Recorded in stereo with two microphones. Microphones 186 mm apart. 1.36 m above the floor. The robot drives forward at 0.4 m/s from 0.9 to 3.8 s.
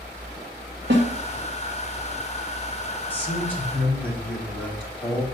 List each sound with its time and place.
0.9 s a snare drum: 75° right (ahead or behind), 2 m
3.1 s a man speaking: 10° left (ahead or behind), 2 m